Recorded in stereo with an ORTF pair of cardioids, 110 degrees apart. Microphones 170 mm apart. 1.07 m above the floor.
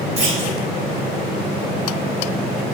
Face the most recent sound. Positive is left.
turn(degrees=-35)